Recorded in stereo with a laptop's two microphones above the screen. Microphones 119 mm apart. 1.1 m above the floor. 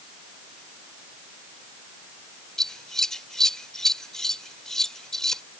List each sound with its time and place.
2.6 s scissors: 5° left (ahead or behind)